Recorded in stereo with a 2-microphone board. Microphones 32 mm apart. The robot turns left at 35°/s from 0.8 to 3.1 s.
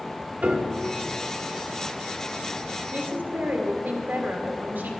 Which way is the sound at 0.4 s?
55° right (ahead or behind).